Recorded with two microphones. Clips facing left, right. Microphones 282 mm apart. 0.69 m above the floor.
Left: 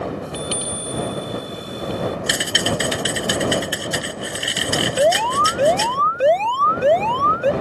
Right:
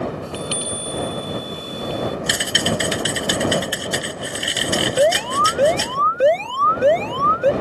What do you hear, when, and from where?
0.2 s a chime: 20° left (ahead or behind)
2.3 s typing on a keyboard: centre (ahead or behind)
5.0 s an alarm: 25° right (ahead or behind)